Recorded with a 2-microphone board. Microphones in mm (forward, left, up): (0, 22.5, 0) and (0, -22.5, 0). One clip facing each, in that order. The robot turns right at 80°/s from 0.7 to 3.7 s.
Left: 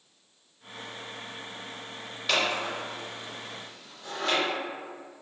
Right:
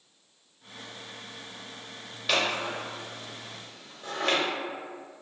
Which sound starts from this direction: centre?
Scissors, at 2.3 s.